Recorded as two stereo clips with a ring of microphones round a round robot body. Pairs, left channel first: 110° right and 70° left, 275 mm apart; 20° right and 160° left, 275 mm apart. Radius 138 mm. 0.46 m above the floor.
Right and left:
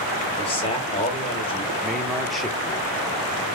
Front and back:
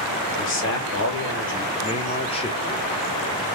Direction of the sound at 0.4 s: 50° right.